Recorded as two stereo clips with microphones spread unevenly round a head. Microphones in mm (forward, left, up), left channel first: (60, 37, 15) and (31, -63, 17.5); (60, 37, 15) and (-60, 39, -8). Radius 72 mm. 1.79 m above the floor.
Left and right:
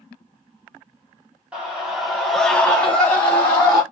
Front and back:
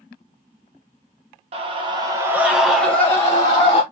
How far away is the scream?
About 0.8 m.